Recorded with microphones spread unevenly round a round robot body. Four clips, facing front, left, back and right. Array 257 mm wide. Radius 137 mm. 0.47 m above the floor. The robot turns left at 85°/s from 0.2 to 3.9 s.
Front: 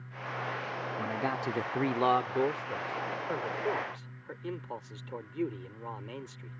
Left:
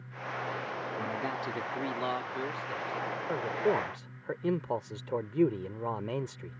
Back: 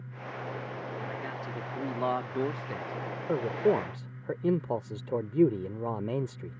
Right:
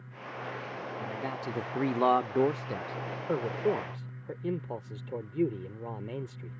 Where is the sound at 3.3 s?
145° right; by 6.6 s 165° left.